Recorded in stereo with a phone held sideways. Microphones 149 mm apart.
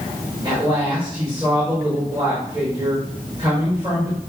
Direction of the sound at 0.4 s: 25° right (ahead or behind).